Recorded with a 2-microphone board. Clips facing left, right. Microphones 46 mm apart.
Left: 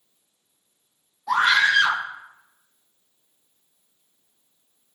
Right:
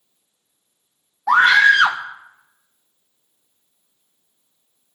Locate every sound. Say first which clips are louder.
1.3 s a scream: right 6 dB; 70° right (ahead or behind), 3 m